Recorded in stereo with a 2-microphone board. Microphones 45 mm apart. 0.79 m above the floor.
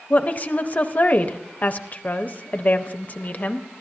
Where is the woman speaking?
40° left (ahead or behind), 0.6 m.